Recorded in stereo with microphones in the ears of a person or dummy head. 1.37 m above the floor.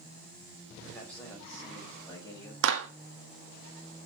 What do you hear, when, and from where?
0.8 s a man speaking: 5° left (ahead or behind), 5.5 m; by 2.5 s 20° left (ahead or behind), 6 m
2.6 s a clap: 75° right (ahead or behind), 1.7 m